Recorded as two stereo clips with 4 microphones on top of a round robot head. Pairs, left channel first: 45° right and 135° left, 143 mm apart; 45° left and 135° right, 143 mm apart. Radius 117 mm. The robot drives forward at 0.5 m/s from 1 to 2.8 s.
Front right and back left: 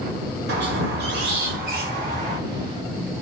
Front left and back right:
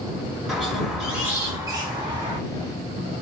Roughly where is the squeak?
Behind left.